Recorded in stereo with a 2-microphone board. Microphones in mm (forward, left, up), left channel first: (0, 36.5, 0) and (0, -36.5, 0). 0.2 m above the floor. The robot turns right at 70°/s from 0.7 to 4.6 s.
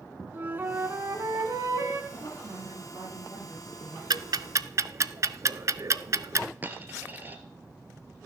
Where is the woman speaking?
130° right, 7 m; by 4.0 s 5° left, 7 m.